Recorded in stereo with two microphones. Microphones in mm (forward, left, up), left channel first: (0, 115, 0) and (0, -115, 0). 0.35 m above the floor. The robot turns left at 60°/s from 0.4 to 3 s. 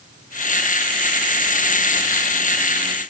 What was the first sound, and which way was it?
Only background noise.